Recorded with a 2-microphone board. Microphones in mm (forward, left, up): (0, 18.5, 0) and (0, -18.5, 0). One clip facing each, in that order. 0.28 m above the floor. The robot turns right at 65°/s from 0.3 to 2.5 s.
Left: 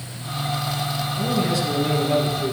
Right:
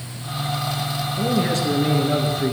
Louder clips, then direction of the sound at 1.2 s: Right 2 dB; 145° right.